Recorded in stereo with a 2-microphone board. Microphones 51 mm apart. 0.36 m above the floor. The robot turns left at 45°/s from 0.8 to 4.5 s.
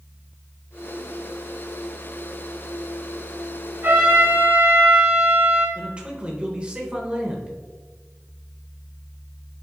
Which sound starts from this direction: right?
A man speaking, at 5.8 s.